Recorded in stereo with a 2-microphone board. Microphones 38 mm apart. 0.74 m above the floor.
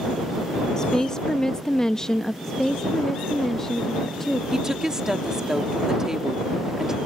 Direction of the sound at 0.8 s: 15° left (ahead or behind).